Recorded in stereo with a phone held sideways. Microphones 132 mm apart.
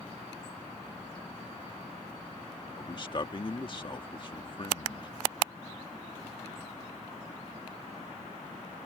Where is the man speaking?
40° left (ahead or behind).